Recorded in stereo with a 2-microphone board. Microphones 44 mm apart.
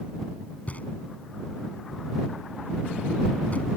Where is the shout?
No shout in this recording.